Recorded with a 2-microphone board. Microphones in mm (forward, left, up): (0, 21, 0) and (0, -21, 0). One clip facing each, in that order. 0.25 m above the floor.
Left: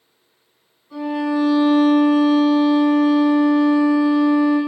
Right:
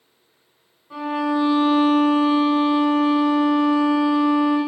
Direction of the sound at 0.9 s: 35° right (ahead or behind).